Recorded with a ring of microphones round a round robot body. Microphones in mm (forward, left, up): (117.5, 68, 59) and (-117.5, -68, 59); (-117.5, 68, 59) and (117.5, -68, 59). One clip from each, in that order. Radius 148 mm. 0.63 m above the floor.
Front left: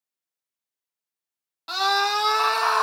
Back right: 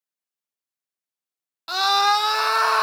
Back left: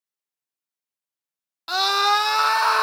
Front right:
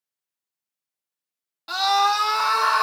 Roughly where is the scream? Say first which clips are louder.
Back right 3 dB, even; behind.